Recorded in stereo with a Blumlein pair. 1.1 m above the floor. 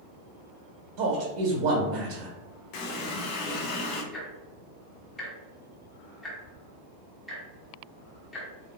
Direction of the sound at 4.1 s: 10° left.